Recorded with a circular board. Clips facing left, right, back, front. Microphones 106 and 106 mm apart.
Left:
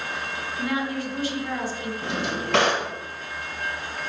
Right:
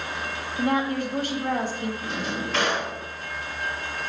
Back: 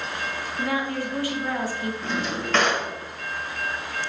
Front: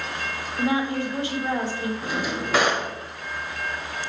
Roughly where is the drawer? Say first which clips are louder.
Left 2 dB, even; left.